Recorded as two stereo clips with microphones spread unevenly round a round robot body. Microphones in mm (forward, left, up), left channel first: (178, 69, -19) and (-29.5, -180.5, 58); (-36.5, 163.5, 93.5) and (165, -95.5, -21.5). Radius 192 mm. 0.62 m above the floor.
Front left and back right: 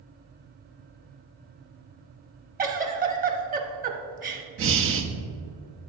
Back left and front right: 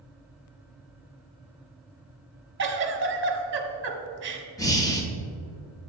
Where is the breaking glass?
I don't hear breaking glass.